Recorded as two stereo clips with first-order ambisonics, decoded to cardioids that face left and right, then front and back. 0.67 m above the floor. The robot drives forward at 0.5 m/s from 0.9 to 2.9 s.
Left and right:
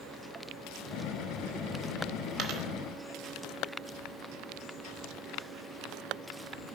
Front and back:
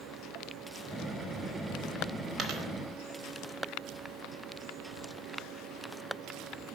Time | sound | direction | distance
2.4 | a dropped coin | 120° right | 0.7 m